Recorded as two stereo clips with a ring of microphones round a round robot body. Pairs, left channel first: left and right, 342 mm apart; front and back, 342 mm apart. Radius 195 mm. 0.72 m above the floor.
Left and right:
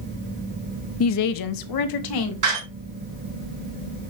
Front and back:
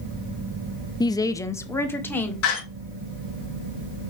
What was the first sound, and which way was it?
A woman speaking, 75° left.